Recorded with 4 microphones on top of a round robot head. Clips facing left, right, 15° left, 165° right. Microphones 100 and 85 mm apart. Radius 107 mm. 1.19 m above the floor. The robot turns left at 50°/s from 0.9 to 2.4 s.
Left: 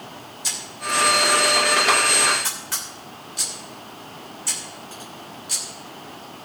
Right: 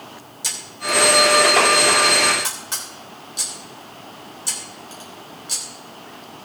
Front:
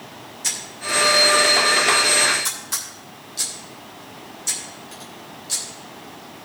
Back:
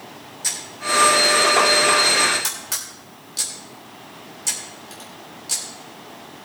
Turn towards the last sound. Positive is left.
turn(degrees=-160)